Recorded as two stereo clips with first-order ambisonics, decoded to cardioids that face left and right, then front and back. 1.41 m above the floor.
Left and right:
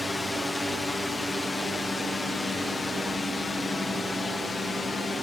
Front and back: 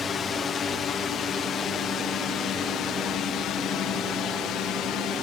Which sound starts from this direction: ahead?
A drone, at 0.0 s.